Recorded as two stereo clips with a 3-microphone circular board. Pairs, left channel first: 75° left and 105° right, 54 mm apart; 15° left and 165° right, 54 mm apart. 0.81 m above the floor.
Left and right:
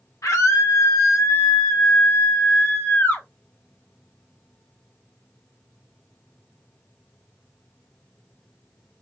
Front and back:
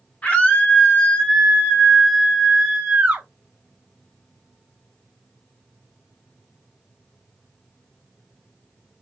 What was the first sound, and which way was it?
A scream, 80° left.